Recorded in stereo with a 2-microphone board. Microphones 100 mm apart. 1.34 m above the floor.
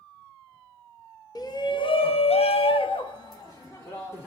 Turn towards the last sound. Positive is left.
turn(degrees=20)  # may be behind; listen again after turning